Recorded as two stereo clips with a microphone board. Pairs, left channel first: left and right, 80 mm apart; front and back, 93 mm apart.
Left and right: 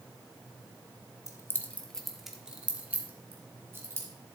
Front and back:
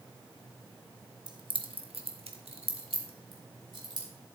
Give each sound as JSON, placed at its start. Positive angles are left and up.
{"t": 1.3, "sound": "keys jangling", "azimuth_deg": 140, "distance_m": 0.9}